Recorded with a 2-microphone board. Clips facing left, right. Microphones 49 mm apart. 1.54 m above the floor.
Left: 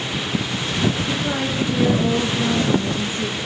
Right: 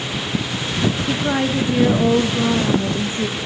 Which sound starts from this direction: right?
A woman speaking, at 1.1 s.